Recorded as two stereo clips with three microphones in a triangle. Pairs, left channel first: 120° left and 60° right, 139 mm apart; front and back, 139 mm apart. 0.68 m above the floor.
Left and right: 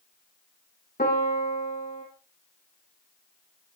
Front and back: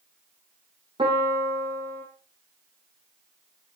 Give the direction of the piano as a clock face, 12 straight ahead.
8 o'clock.